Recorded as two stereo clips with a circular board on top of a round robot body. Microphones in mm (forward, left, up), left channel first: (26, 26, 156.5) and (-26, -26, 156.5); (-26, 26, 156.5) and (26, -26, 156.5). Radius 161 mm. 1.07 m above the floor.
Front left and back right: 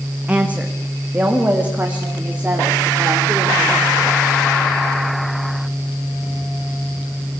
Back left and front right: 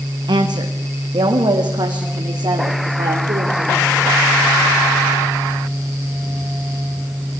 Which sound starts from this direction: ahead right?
A woman speaking, at 0.3 s.